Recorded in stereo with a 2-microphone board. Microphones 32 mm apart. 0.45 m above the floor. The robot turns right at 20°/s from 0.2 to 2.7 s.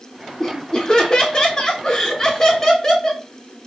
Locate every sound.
0.4 s laughter: 25° left (ahead or behind), 0.9 m